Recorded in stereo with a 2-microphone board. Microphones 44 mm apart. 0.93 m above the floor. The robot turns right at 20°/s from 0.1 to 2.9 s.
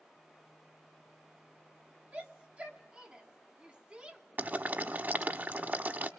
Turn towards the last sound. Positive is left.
turn(degrees=-50)  # may be behind; listen again after turning